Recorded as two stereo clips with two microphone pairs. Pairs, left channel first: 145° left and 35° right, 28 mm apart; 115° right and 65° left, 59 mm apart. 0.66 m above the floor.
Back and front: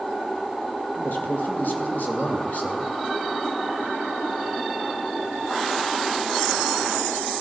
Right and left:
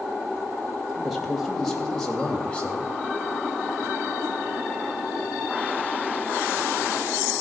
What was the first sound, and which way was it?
A man speaking, 150° left.